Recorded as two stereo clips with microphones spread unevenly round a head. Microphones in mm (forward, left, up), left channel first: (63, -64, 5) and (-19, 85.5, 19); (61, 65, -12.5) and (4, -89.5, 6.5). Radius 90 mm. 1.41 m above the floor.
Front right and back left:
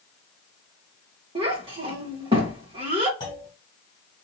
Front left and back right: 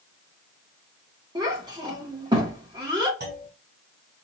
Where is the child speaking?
Straight behind, 1.5 m.